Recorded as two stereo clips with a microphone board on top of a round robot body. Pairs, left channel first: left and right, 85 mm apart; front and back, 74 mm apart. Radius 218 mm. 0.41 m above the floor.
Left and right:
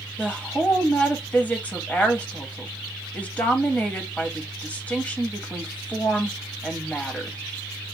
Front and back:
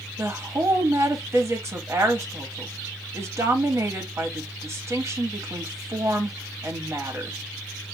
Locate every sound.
0.2 s a woman speaking: 155° left, 1.5 m